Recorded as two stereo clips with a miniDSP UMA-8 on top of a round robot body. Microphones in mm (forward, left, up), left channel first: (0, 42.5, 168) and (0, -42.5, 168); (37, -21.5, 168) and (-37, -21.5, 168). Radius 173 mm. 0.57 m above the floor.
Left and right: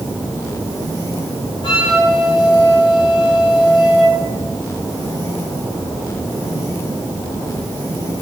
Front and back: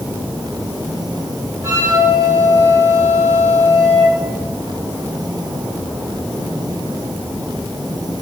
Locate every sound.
1.6 s a flute: 125° left, 7 m